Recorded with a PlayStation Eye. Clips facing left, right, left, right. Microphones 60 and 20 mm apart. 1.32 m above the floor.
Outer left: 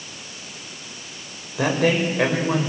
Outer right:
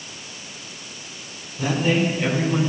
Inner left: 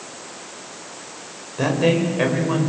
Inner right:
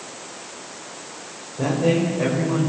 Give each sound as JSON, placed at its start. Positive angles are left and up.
{"t": 1.6, "sound": "a man speaking", "side_deg": 85, "distance_m": 7.0}